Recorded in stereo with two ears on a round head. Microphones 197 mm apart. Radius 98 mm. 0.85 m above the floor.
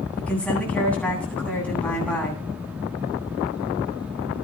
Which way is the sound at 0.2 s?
5° left (ahead or behind).